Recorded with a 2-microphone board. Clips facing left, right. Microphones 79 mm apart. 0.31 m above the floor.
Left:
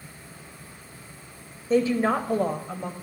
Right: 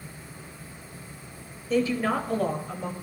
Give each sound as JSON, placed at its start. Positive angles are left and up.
{"t": 1.7, "sound": "a woman speaking", "side_deg": 30, "distance_m": 0.9}